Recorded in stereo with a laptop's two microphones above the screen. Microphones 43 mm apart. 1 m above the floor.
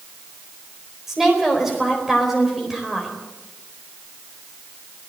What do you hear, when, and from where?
1.1 s a woman speaking: 10° right (ahead or behind), 4 m